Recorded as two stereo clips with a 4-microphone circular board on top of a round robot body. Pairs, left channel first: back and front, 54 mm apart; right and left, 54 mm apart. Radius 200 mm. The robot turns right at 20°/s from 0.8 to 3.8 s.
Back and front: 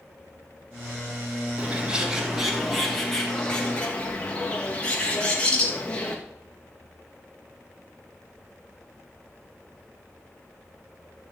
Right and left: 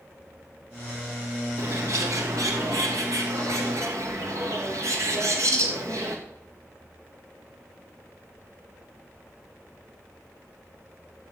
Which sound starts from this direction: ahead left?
A bird, at 1.6 s.